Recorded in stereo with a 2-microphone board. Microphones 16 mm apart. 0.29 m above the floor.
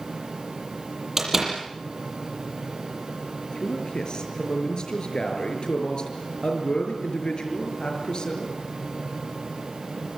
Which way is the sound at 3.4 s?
55° left (ahead or behind).